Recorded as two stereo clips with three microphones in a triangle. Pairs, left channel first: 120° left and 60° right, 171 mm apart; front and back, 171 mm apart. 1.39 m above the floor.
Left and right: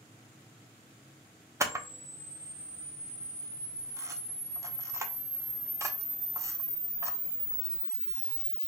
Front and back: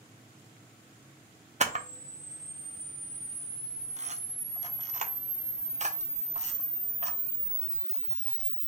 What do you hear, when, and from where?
1.6 s a camera shutter: 130° right, 0.5 m